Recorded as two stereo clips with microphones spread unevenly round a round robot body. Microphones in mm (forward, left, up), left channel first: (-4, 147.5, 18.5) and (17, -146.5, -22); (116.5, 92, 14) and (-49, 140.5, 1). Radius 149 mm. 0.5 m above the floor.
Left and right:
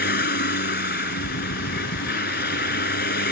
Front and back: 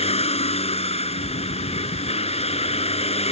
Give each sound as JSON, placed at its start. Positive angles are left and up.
{"t": 0.0, "sound": "a vehicle", "azimuth_deg": 35}